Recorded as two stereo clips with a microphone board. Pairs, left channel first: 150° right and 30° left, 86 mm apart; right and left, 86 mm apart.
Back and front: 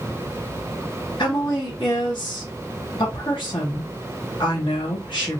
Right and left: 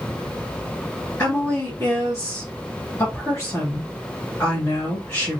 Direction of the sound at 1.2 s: 150° right.